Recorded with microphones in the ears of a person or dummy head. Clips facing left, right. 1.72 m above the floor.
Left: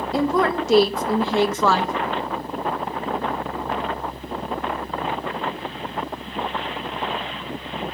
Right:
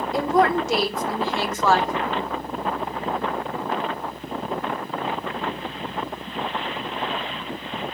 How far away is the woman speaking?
About 0.7 m.